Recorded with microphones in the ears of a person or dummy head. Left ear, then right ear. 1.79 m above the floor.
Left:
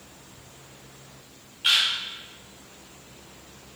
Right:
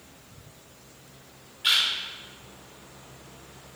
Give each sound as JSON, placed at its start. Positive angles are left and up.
{"t": 1.6, "sound": "a camera shutter", "side_deg": 0, "distance_m": 1.4}